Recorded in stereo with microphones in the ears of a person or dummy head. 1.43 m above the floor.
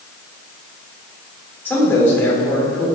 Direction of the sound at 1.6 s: 10° left (ahead or behind).